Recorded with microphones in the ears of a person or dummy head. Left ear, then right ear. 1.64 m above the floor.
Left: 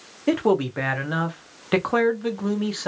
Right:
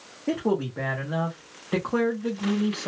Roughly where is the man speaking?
Left.